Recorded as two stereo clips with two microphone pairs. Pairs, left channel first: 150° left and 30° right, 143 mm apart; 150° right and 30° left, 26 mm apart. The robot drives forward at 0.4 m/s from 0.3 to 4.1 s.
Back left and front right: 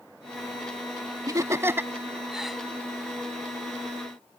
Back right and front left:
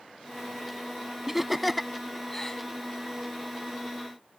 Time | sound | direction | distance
1.3 | laughter | 35° right | ?